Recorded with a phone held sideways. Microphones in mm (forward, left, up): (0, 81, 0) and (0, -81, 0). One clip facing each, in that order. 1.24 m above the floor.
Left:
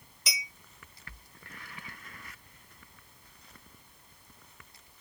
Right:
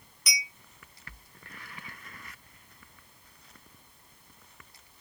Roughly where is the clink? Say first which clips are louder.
Right 2 dB; left.